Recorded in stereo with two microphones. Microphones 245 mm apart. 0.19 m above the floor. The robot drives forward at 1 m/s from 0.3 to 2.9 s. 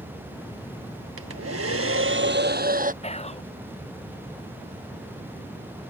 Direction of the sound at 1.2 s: 75° right (ahead or behind).